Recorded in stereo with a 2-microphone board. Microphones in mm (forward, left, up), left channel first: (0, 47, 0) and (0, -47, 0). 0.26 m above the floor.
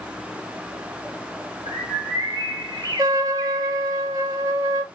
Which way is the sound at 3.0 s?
45° right (ahead or behind).